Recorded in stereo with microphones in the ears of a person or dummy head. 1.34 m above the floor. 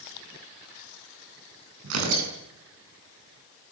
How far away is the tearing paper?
About 8.5 m.